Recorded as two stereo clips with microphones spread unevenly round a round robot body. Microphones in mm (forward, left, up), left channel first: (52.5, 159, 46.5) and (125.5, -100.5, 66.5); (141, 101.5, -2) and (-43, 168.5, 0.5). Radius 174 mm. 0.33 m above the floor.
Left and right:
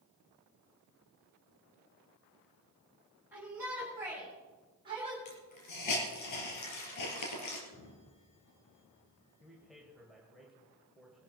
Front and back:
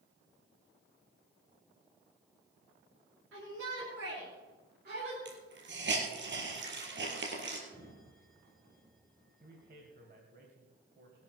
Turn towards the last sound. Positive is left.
turn(degrees=-165)